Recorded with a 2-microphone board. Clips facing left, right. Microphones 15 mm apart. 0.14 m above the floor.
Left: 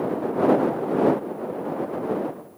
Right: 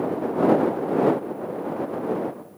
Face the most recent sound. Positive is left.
No sound to turn to.